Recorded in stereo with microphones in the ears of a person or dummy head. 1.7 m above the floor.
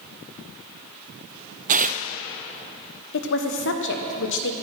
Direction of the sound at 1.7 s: 40° right (ahead or behind).